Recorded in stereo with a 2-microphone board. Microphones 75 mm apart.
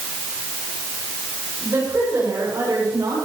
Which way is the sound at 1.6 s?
35° right (ahead or behind).